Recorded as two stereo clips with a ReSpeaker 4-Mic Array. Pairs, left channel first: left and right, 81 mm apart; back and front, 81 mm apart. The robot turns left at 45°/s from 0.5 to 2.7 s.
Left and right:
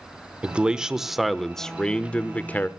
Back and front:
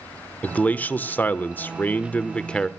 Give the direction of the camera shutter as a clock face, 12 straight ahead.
No camera shutter in this recording.